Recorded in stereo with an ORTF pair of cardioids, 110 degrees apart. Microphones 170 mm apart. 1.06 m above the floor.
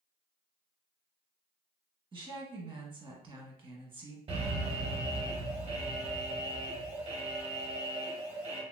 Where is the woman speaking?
30° right, 1.2 m.